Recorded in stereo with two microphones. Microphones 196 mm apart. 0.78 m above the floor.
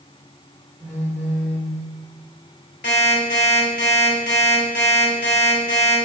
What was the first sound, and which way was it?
A phone buzzing, 10° right (ahead or behind).